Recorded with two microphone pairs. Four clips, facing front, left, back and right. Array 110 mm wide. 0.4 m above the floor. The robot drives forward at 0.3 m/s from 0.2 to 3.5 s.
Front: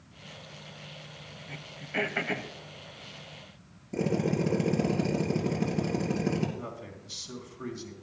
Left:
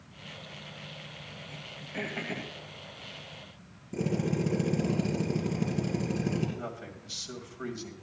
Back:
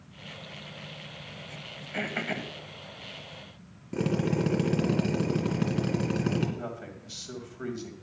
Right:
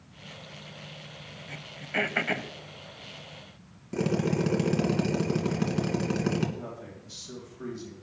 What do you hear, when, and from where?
1.5 s throat clearing: 75° right, 0.8 m; by 2.5 s 100° right, 0.8 m
3.9 s a drill: 125° right, 2 m
6.6 s a man speaking: 125° left, 2.5 m